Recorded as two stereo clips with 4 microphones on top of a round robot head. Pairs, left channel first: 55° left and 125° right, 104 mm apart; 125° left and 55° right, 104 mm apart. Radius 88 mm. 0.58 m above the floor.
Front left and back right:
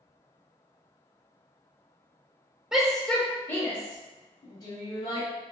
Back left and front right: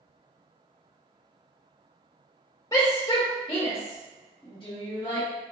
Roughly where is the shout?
Behind left.